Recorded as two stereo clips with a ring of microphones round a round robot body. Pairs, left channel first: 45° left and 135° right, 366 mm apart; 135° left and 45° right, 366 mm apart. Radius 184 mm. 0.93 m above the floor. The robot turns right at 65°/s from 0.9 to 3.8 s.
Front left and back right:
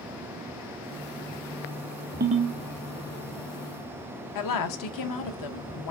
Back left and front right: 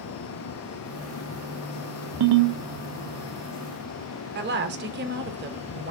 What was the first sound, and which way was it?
A ringtone, 70° right.